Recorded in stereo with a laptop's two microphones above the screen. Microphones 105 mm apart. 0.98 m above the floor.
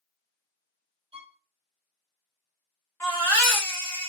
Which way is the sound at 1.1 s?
65° right (ahead or behind).